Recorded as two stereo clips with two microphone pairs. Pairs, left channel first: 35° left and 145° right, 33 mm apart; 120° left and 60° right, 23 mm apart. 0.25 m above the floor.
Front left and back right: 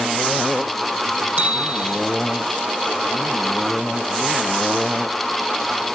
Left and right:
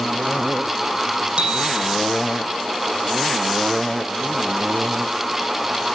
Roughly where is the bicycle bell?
Right.